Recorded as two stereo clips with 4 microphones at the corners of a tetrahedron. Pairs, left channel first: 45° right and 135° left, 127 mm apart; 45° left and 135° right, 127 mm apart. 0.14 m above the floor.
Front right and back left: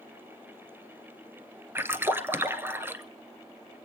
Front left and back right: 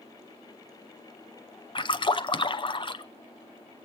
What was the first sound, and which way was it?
A splash, 70° left.